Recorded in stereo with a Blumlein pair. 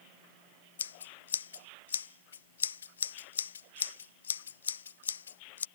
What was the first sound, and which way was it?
Scissors, 70° left.